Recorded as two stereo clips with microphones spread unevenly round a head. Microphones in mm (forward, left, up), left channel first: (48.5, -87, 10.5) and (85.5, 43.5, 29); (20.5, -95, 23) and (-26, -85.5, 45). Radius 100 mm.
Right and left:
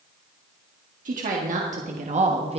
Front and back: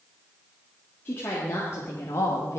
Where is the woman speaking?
55° left, 2 m; by 2.6 s 30° left, 1.2 m.